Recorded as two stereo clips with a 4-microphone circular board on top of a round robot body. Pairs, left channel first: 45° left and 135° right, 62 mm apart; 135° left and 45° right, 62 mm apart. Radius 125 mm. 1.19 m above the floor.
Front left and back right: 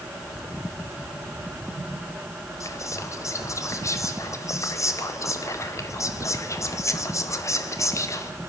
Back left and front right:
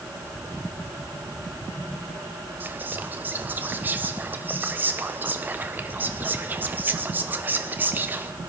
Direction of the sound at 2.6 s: 15° left.